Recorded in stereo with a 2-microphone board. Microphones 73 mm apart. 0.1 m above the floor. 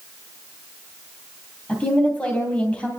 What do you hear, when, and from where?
1.7 s a woman speaking: 20° left (ahead or behind), 3 m